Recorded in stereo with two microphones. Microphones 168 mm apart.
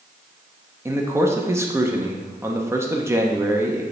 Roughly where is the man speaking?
Centre.